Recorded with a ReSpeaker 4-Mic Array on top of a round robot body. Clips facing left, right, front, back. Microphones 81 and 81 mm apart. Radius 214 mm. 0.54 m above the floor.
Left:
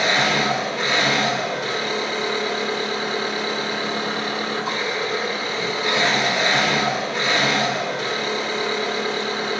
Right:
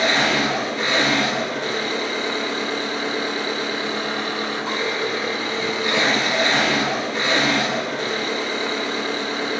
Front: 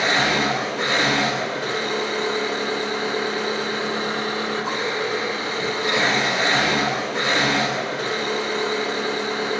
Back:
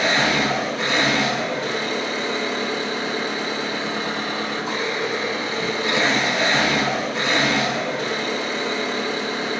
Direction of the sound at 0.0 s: 10° left.